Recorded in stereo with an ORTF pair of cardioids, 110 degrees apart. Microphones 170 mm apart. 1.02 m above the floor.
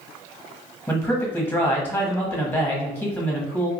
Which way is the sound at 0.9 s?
10° left.